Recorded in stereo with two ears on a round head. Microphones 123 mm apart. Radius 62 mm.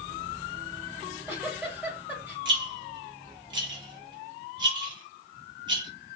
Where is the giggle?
15° right (ahead or behind), 2 m.